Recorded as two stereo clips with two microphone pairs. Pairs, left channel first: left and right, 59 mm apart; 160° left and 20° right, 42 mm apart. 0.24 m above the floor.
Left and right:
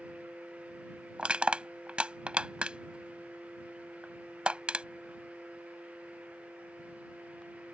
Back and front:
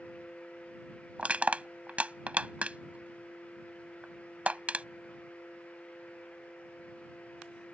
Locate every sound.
1.2 s crushing: 35° right